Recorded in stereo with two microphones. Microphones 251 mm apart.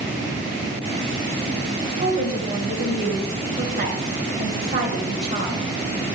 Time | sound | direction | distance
2.0 | a woman speaking | 40° right (ahead or behind) | 1.8 m